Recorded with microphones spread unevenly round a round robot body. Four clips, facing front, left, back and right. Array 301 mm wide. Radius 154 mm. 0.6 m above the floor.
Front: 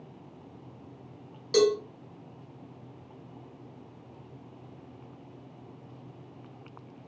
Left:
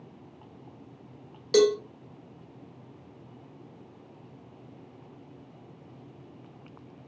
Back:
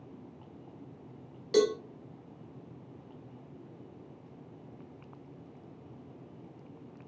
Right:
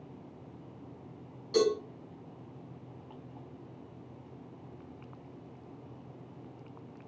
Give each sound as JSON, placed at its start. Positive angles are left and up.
{"t": 1.5, "sound": "a cowbell", "azimuth_deg": 90, "distance_m": 1.6}